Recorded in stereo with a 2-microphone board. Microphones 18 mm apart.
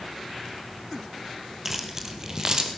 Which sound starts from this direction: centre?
Keys jangling, at 1.6 s.